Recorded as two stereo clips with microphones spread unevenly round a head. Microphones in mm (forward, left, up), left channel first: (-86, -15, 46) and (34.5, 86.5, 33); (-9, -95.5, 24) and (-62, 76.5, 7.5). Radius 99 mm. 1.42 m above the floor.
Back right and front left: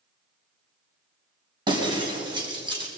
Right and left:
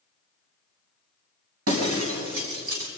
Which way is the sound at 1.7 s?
100° left.